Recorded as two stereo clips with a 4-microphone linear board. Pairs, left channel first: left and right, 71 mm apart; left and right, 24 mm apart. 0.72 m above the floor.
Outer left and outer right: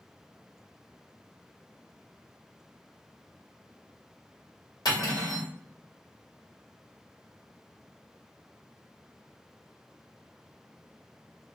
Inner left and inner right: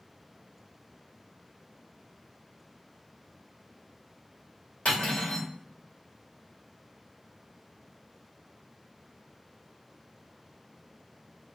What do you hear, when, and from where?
4.8 s cutlery clinking: 85° left, 1.5 m